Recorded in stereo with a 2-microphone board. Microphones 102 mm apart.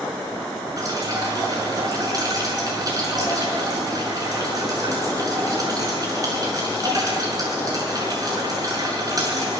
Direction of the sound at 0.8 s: 35° right (ahead or behind).